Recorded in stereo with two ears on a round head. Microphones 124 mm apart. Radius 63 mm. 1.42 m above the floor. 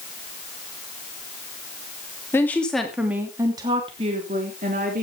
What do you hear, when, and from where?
2.3 s a woman speaking: 15° left (ahead or behind), 3 m; by 5.0 s 60° right (ahead or behind), 4 m